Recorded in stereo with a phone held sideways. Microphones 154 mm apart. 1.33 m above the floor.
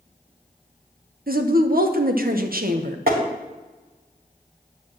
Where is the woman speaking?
70° right (ahead or behind), 1.0 m.